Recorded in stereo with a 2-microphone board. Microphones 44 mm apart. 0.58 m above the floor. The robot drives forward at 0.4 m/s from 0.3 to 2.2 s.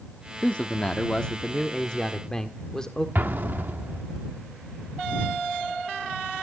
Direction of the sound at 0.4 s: 30° left (ahead or behind).